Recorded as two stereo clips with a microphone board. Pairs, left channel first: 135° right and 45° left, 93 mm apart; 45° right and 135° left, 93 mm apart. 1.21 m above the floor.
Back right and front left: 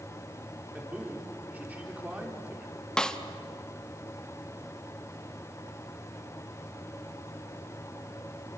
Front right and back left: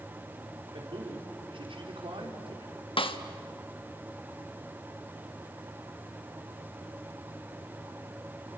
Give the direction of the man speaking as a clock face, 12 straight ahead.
8 o'clock.